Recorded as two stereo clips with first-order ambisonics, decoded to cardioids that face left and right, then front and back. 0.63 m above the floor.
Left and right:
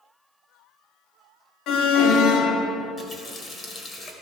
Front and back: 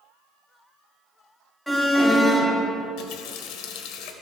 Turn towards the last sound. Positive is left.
turn(degrees=20)